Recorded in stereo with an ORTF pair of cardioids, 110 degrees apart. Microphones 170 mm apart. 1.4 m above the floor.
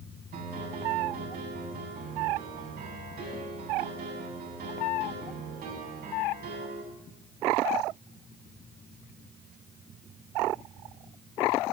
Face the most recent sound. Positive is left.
turn(degrees=-60)